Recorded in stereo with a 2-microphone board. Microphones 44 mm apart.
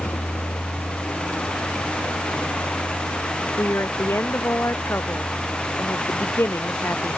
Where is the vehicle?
65° left (ahead or behind); by 7.2 s 90° left.